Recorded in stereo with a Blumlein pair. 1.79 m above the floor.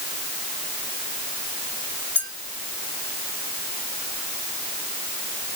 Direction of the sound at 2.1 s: 70° left.